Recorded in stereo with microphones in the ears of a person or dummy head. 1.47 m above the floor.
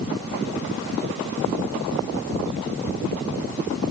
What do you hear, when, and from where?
Only background noise.